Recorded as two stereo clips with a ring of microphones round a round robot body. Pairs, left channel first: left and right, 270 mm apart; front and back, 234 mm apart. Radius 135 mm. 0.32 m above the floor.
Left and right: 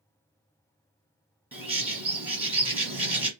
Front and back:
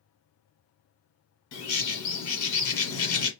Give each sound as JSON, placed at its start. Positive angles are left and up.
{"t": 1.5, "sound": "a bird", "azimuth_deg": -5, "distance_m": 1.4}